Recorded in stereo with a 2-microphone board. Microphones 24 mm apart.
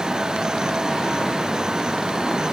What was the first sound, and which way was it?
Only background noise.